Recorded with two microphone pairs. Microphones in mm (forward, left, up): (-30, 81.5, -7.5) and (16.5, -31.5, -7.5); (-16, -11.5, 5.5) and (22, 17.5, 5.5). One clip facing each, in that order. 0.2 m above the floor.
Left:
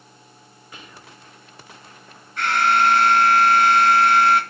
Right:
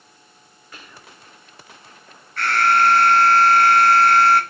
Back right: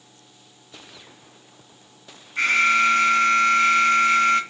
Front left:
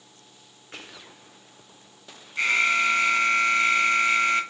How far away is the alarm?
About 4 m.